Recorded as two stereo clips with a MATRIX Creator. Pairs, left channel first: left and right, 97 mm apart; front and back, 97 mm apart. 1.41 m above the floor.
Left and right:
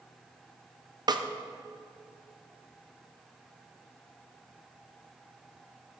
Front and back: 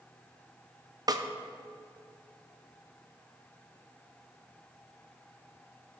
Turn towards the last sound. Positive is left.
turn(degrees=-130)